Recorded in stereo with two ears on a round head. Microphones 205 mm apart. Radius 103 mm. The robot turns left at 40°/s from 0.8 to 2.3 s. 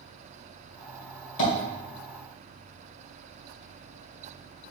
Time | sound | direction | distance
1.4 | tapping | 55° left (ahead or behind) | 2 m